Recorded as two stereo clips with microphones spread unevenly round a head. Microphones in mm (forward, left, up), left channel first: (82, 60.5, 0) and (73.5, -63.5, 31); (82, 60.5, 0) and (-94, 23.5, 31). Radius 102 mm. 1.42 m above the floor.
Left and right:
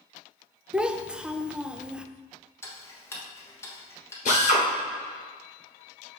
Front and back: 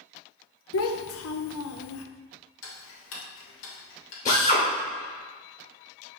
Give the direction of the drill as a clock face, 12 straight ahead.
10 o'clock.